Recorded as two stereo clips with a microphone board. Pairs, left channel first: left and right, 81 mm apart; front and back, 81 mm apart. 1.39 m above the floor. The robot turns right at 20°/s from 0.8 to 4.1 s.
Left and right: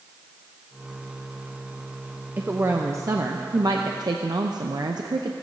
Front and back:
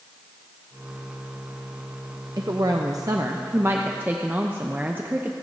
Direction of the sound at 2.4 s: 150° right.